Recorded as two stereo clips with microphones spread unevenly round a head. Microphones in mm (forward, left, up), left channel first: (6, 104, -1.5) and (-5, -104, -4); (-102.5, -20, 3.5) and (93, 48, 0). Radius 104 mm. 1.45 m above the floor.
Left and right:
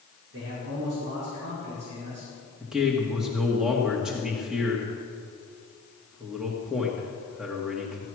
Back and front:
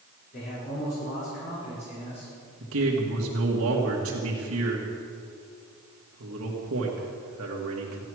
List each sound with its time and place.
0.3 s a man speaking: 115° right, 5.5 m; by 2.3 s 95° right, 5.5 m
2.6 s a man speaking: 5° right, 1.9 m